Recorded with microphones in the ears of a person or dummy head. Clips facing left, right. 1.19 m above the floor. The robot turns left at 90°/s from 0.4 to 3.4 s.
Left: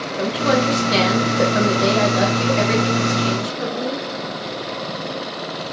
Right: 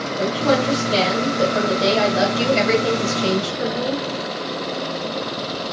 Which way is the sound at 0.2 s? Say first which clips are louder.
Even; 125° left.